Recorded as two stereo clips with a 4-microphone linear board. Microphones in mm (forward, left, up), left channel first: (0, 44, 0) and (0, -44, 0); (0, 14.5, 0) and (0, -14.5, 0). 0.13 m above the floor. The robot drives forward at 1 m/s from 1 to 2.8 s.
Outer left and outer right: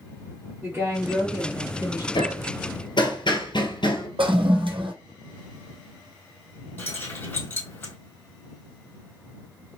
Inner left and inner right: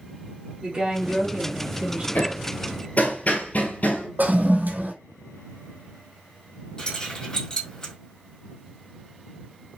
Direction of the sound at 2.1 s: 65° left (ahead or behind).